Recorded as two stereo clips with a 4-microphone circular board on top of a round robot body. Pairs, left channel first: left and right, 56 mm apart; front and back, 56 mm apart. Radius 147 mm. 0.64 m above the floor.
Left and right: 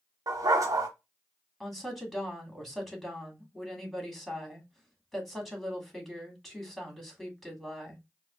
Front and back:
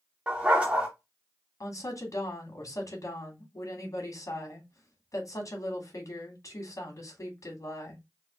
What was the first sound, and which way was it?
A dog barking, 110° right.